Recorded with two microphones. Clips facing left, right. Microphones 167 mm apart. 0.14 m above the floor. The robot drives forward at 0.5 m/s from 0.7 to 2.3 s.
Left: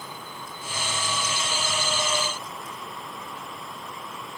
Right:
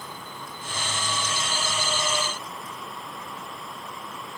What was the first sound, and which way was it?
Only background noise.